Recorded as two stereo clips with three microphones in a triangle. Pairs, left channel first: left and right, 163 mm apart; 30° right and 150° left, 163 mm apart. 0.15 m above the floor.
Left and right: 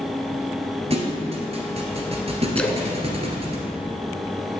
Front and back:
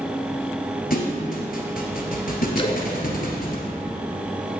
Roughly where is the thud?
Ahead right.